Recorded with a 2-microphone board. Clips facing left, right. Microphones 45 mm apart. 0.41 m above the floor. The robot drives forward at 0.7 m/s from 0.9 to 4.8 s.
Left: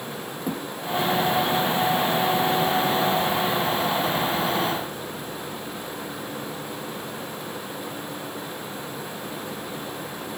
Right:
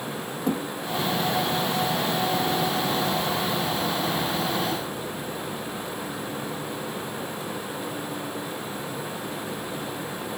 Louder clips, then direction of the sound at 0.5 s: Right 4 dB; 5° left (ahead or behind).